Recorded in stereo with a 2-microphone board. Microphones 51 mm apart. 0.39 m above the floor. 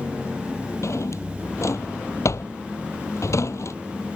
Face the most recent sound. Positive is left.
turn(degrees=70)  # may be behind; listen again after turning